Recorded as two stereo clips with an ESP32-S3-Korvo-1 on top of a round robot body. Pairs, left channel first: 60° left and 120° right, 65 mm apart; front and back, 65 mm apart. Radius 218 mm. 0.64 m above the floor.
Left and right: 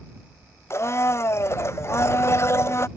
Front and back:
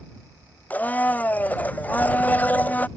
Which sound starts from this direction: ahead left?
A blender, at 0.7 s.